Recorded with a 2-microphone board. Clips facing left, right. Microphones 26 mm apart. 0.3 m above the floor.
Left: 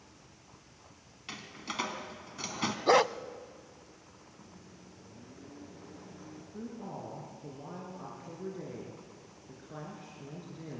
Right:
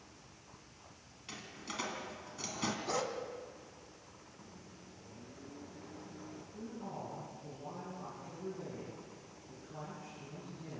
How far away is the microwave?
About 3 m.